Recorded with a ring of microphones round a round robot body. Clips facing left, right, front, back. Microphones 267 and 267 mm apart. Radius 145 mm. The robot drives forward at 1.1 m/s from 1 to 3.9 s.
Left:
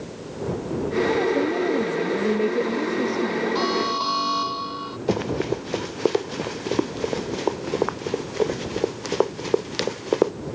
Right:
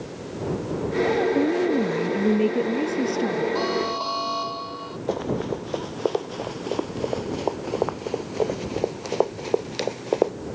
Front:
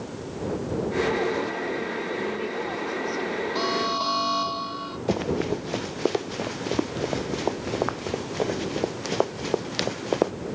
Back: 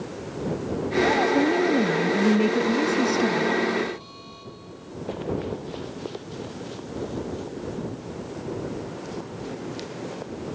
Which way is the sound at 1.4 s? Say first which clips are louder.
Right 1 dB, back 9 dB; 155° right.